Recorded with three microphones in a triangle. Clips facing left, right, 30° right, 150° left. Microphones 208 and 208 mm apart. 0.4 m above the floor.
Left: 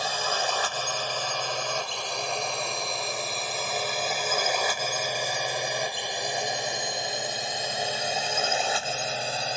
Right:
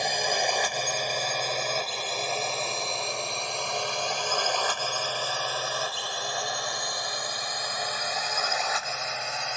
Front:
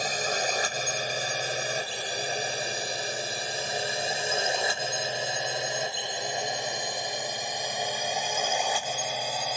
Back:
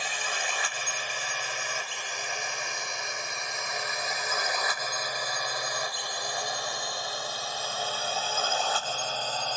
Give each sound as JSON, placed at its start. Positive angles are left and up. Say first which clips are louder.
{"t": 0.0, "sound": "a drone", "louder": "right 2 dB, front 7 dB", "azimuth_deg": -25}